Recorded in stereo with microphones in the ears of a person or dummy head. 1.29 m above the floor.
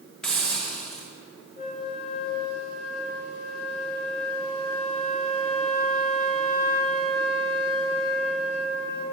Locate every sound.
0.2 s a hiss: 5° left (ahead or behind), 0.8 m
1.6 s a flute: 50° left (ahead or behind), 1.7 m